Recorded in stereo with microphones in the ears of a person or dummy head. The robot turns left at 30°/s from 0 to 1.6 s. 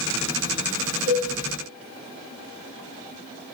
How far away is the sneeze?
No sneeze in this recording.